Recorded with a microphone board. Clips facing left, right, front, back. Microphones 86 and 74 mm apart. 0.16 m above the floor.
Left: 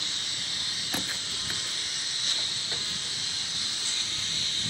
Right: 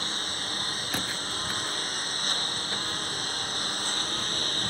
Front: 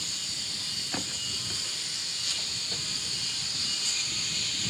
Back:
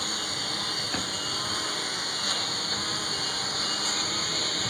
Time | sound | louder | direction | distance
0.0 | a lawn mower | right 6 dB, back 9 dB | 140° right | ?